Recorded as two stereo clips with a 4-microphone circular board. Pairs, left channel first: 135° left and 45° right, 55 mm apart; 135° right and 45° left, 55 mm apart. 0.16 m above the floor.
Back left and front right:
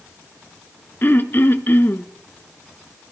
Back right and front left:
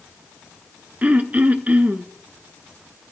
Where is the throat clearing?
100° left, 0.8 m.